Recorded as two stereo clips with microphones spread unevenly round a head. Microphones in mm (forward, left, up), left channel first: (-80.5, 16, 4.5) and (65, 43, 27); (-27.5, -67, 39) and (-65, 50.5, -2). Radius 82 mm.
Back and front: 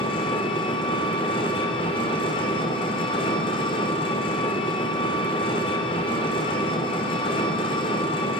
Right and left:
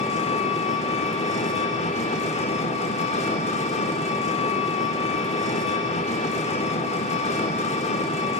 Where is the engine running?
110° right, 3.5 m.